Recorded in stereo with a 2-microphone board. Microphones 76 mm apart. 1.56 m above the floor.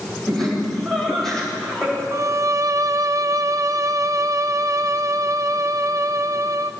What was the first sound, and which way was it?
Laughter, 5° left (ahead or behind).